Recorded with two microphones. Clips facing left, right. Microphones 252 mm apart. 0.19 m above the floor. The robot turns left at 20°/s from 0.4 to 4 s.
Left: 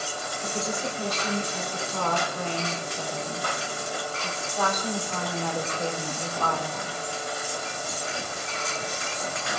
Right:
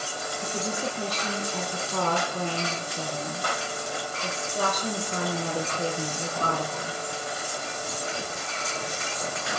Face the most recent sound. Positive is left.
turn(degrees=-140)